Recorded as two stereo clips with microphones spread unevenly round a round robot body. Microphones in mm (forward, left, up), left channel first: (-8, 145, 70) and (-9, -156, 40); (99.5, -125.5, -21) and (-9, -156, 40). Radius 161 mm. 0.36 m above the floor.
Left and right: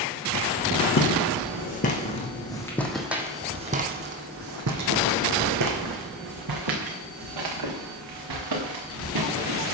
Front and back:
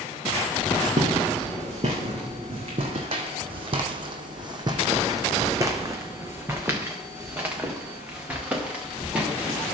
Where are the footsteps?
140° left, 1.8 m; by 9.8 s 85° right, 3.5 m.